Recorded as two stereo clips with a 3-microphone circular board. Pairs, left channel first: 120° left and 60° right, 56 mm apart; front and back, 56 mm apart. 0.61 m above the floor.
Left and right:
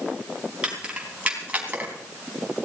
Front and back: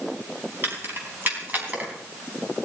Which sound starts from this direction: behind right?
Keys jangling, at 0.6 s.